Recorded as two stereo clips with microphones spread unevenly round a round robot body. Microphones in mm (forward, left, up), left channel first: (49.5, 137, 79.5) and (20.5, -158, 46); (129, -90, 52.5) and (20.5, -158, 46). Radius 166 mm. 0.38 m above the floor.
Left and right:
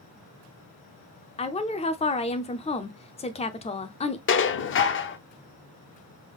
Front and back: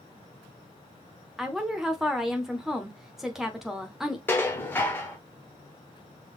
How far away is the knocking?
I don't hear knocking.